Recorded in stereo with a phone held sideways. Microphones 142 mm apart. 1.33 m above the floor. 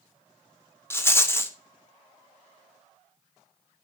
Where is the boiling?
I don't hear boiling.